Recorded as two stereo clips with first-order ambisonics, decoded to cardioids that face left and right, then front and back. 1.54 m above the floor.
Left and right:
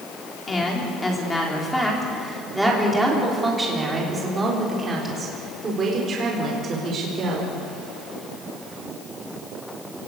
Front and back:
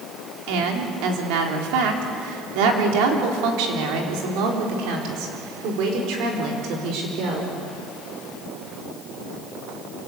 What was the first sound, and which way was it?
A woman speaking, 165° left.